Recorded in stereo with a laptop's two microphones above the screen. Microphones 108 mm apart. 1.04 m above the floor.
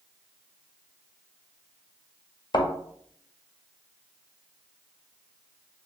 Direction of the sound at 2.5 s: 45° left (ahead or behind).